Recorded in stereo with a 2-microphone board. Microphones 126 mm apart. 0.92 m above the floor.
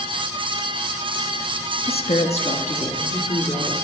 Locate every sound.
1.9 s a woman speaking: 50° left (ahead or behind), 0.6 m; by 3.7 s 60° left (ahead or behind), 2 m